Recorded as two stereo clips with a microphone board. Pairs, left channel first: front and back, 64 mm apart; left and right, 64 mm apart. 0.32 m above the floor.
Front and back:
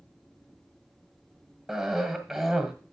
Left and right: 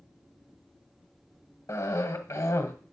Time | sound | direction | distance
1.7 | a cough | 95° left | 1.6 m